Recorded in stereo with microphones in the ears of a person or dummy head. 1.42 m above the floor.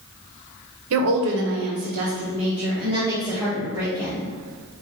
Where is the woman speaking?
75° right (ahead or behind), 0.9 m; by 4.2 s 10° right (ahead or behind), 1.9 m.